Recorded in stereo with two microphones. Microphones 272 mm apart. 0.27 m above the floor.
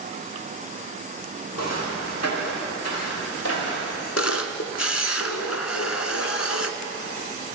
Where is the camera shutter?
65° left (ahead or behind), 1.5 m.